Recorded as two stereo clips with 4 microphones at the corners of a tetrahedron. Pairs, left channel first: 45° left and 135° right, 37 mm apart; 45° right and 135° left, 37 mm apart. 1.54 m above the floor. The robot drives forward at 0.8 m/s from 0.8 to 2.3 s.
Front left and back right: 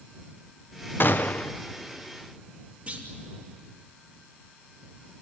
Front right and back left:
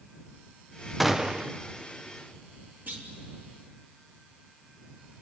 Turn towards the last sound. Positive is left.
turn(degrees=170)